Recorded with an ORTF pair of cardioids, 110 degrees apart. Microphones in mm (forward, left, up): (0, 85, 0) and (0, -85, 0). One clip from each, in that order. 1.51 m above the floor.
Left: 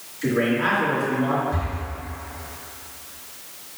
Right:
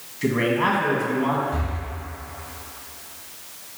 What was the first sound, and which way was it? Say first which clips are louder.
A man speaking: right 1 dB; 60° right.